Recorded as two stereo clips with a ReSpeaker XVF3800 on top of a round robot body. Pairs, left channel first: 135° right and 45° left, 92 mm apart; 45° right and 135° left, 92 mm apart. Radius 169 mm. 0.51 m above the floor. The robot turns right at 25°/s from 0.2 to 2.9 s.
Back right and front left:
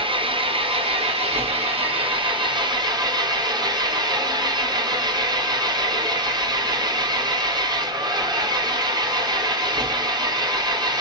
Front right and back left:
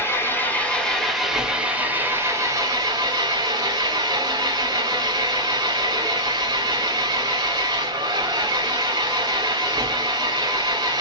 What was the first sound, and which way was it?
An engine running, 20° left.